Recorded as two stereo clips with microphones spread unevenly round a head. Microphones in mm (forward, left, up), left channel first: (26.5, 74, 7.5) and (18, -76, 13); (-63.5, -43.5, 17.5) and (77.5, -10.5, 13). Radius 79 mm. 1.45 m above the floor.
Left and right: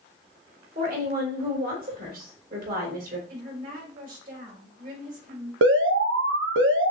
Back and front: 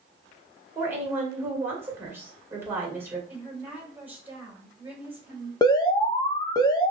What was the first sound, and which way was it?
A woman speaking, 60° right.